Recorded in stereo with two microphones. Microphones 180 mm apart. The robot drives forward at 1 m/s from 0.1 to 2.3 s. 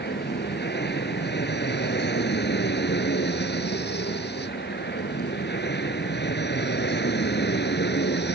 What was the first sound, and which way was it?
An aircraft, 65° left (ahead or behind).